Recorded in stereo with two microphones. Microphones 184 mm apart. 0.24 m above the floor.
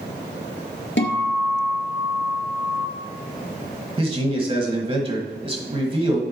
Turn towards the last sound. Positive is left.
turn(degrees=-30)  # may be behind; listen again after turning